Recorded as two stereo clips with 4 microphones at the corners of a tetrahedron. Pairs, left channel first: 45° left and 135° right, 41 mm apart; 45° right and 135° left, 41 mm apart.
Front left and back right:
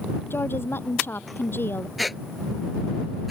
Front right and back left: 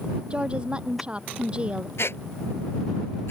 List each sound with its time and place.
0.3 s a woman speaking: 70° left
2.0 s a squeak: 50° right